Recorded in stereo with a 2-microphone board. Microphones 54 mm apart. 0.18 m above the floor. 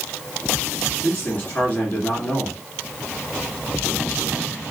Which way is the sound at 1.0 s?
25° left (ahead or behind).